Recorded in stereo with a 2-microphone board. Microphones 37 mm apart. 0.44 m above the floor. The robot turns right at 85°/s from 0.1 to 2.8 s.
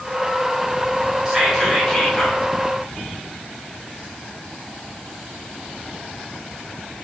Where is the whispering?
20° right (ahead or behind), 0.8 m; by 2.4 s 25° left (ahead or behind), 0.8 m.